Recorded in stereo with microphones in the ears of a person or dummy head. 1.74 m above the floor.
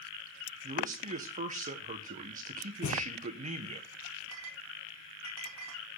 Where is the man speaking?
35° right (ahead or behind), 1.2 m.